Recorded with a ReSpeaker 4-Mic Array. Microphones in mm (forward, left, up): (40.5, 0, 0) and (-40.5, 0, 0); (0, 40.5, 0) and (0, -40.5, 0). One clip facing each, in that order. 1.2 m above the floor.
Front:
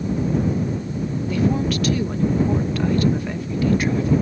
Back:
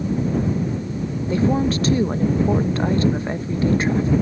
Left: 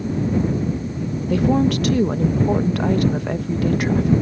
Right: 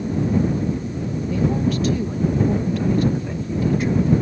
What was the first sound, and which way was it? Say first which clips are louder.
A woman speaking: back 2 dB, left 4 dB; 120° left.